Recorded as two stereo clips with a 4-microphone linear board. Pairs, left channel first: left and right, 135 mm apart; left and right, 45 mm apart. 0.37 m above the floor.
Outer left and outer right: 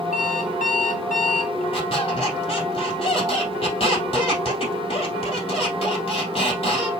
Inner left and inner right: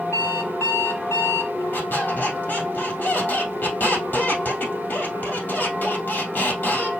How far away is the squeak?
About 3 m.